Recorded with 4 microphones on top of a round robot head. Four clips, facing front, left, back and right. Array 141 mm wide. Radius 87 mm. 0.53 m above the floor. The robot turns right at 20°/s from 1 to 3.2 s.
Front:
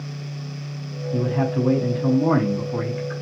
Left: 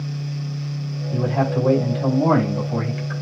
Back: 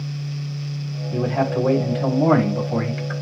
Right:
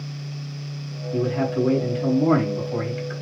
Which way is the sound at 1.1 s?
135° left.